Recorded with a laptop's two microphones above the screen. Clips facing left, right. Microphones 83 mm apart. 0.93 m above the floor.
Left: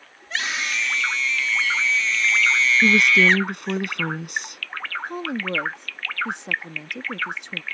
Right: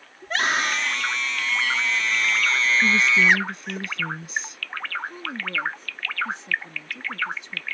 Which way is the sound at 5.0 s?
65° left (ahead or behind).